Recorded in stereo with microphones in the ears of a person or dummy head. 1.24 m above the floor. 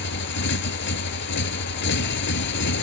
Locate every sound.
0.0 s a motorcycle: 65° left (ahead or behind)